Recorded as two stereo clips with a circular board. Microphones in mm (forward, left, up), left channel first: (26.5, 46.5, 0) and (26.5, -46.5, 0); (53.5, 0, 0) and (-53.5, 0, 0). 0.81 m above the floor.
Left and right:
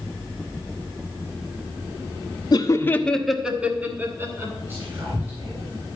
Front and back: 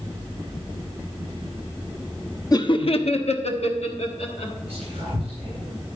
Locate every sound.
2.5 s laughter: 50° left, 0.9 m; by 4.5 s 30° right, 2.5 m
4.7 s whispering: 155° right, 4 m